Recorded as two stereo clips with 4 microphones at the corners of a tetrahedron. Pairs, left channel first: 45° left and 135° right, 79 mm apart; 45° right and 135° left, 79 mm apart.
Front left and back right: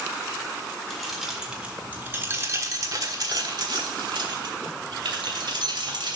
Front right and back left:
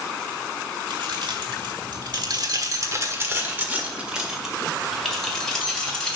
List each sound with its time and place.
0.9 s keys jangling: 135° left, 1.6 m; by 6.2 s 125° right, 2.5 m